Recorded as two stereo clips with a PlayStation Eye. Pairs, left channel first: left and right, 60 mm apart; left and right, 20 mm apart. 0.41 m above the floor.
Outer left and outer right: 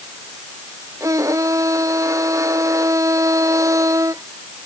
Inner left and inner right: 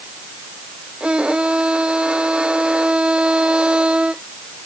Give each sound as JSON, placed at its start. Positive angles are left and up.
{"t": 1.0, "sound": "a violin", "side_deg": -65}